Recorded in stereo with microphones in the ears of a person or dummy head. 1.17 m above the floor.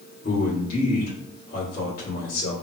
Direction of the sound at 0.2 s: 45° left (ahead or behind).